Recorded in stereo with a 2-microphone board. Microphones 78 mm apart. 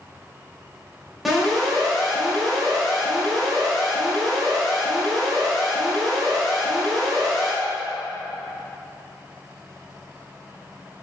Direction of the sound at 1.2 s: Centre (ahead or behind).